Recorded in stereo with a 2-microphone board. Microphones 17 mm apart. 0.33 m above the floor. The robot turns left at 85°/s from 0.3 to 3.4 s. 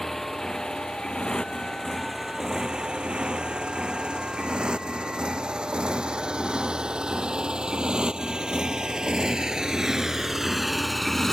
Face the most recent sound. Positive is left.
turn(degrees=25)  # may be behind; listen again after turning